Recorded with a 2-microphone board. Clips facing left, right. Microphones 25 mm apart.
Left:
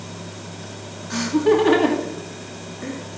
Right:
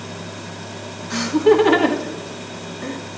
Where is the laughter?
10° right (ahead or behind), 2.5 m.